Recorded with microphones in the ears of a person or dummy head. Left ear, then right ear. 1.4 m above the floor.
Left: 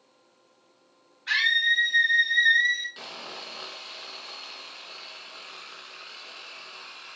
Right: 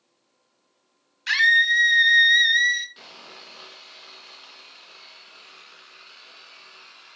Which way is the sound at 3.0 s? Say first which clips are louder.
Left 5 dB; 10° left (ahead or behind).